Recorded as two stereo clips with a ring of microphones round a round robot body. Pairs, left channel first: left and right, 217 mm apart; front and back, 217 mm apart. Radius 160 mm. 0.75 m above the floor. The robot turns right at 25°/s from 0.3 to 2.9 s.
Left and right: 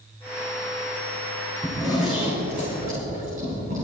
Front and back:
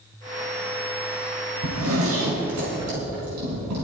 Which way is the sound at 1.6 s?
170° left.